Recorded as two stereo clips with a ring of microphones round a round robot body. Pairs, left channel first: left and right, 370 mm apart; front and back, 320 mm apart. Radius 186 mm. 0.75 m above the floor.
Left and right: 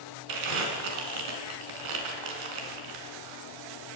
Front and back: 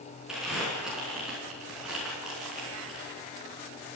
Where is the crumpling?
90° right, 4.5 m.